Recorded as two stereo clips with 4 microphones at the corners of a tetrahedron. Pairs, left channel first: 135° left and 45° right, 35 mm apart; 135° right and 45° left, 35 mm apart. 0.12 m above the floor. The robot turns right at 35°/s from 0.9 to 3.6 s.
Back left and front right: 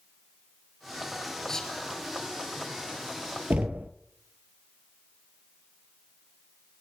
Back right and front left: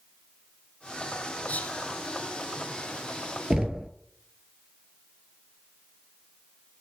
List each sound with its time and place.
1.5 s whispering: 160° right, 1.6 m; by 1.8 s 145° right, 1.6 m
3.5 s knocking: 25° right, 1.3 m